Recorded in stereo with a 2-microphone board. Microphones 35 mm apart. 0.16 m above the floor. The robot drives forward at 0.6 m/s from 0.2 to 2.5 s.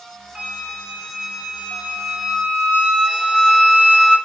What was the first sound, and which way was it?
A flute, 25° right (ahead or behind).